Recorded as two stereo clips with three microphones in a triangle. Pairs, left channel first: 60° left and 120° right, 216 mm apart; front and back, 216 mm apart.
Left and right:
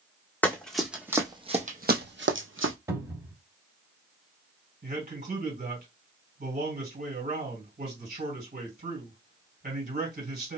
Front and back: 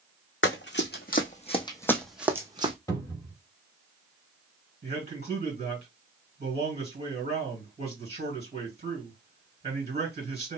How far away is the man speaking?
About 2 m.